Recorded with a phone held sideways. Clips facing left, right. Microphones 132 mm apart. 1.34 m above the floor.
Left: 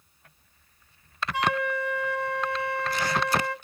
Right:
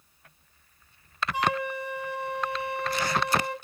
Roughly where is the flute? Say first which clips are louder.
Left 2 dB; centre.